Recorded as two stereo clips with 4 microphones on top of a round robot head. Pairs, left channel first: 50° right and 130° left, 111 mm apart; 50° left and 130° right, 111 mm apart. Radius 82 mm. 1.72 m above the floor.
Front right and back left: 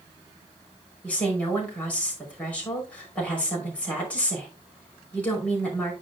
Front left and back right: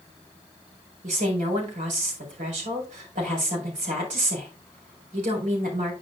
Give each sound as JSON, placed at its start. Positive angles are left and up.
{"t": 1.0, "sound": "a woman speaking", "azimuth_deg": -130, "distance_m": 5.5}